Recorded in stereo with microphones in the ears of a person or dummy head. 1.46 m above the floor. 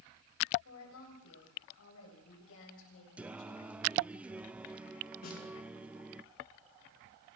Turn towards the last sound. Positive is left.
turn(degrees=40)  # may be behind; listen again after turning